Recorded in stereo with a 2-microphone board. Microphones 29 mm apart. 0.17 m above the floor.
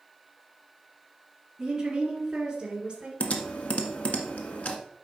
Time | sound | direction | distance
1.6 | a woman speaking | 20° right (ahead or behind) | 3 m
3.2 | typing on a keyboard | 55° left (ahead or behind) | 1.2 m